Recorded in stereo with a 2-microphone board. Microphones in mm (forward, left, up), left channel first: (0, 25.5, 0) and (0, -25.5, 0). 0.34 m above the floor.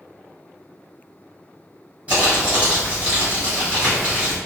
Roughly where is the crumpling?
Right.